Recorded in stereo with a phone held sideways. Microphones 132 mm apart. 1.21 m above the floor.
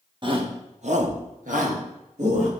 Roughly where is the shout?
Right.